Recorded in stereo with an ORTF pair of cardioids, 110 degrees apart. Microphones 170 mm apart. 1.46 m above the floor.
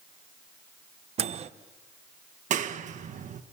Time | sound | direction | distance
1.2 | a microwave | 40° right | 1.0 m
2.5 | a clap | 45° right | 1.6 m